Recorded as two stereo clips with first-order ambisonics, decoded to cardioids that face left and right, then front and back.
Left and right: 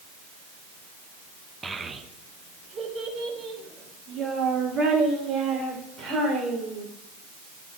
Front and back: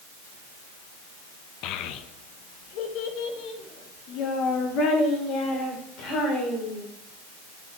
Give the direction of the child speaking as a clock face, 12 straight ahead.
12 o'clock.